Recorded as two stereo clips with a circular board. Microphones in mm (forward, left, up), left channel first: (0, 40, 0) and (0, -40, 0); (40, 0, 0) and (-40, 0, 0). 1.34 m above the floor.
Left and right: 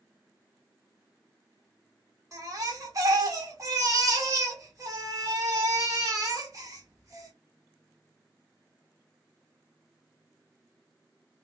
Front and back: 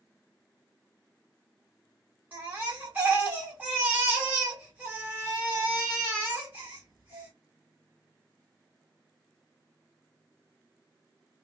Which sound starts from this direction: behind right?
A baby crying, at 2.3 s.